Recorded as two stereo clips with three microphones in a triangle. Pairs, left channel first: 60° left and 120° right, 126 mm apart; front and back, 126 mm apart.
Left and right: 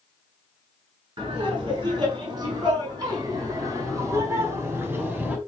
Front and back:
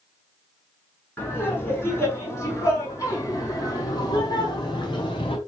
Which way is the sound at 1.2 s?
70° right.